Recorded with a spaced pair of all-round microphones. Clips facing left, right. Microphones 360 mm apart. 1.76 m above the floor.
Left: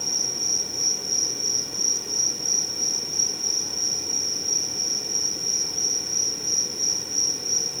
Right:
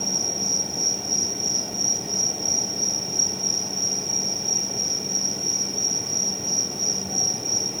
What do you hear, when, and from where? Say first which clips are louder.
0.0 s an insect: right 6 dB; 70° right (ahead or behind)